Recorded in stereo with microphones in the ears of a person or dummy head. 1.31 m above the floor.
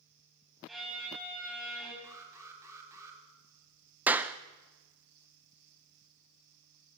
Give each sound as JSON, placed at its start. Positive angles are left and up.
{"t": 0.7, "sound": "a violin", "side_deg": 0, "distance_m": 7.0}
{"t": 2.0, "sound": "an alarm", "side_deg": -15, "distance_m": 4.5}
{"t": 4.1, "sound": "a clap", "side_deg": -10, "distance_m": 0.9}